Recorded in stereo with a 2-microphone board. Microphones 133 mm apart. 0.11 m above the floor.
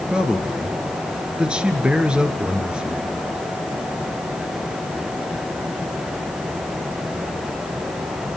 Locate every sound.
0.1 s a man speaking: 10° right (ahead or behind), 1.9 m